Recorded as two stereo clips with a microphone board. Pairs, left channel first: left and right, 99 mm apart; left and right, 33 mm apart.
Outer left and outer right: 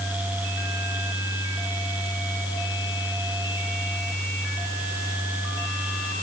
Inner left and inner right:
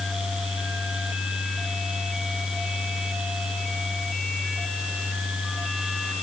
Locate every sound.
Only background noise.